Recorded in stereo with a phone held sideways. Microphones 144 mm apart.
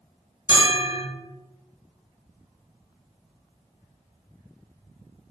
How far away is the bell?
About 1.4 m.